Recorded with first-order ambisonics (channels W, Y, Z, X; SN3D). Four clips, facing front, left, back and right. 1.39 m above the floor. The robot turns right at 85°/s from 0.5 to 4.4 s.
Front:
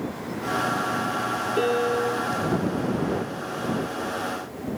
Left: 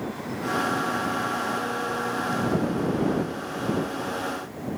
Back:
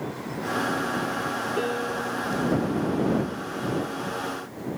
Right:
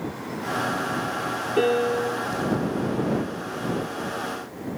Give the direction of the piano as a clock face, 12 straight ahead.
3 o'clock.